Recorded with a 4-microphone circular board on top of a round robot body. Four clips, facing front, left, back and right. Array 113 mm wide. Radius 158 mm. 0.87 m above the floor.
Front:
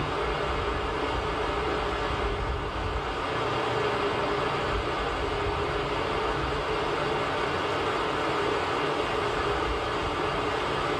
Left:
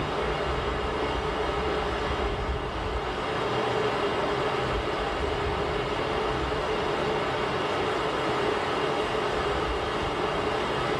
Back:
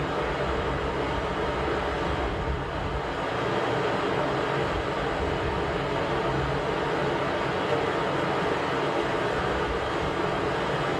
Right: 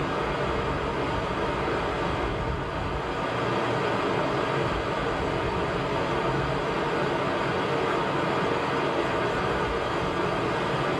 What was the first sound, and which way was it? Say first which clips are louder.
Running water: right 1 dB, back 1 dB; 140° right.